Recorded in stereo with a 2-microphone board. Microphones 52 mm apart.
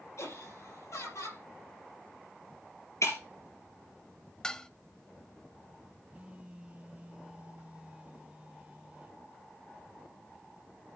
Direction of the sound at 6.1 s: 25° right (ahead or behind).